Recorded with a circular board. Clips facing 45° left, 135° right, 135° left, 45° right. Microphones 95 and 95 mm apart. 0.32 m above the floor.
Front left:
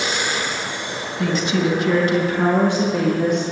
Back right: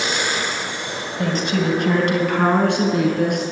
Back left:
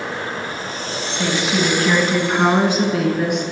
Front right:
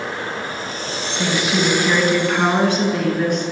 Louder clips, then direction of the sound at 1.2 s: Front left 1 dB, even; 125° right.